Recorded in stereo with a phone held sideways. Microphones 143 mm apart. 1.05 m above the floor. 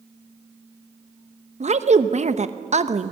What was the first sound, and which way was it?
A woman speaking, 55° right (ahead or behind).